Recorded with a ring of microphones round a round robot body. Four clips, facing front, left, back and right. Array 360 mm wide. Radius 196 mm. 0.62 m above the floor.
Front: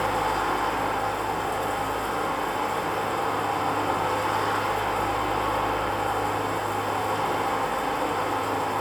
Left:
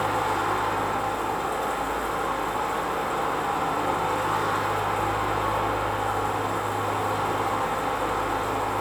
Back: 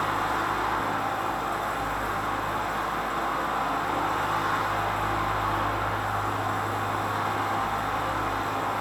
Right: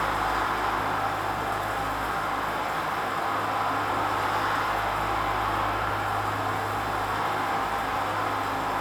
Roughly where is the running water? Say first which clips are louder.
Left 1 dB, front 2 dB; ahead left.